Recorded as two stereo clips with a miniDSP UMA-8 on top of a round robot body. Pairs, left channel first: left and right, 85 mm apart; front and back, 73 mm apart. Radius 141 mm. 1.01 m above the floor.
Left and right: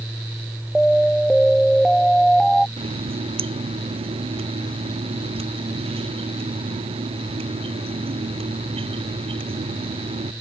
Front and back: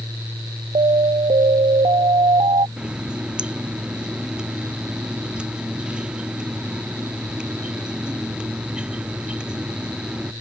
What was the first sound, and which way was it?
An alarm, 175° left.